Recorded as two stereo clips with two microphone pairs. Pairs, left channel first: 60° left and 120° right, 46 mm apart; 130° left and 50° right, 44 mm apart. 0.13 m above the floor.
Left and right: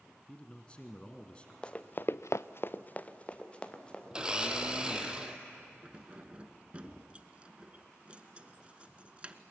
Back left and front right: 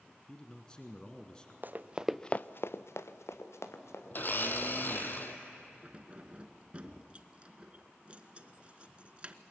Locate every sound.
0.3 s a man speaking: 85° left, 1.3 m
1.6 s running footsteps: 10° right, 1.1 m; by 5.1 s 135° left, 4.5 m
4.1 s a blender: 165° left, 1.5 m
5.8 s keys jangling: 85° right, 1.0 m